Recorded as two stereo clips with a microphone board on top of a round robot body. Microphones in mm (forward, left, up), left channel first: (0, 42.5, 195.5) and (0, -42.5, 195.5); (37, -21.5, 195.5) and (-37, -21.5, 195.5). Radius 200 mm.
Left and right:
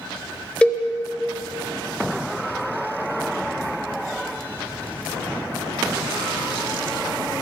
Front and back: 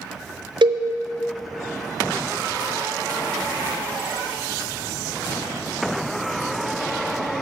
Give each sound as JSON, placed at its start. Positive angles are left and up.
{"t": 0.6, "sound": "a cowbell", "azimuth_deg": 170, "distance_m": 0.7}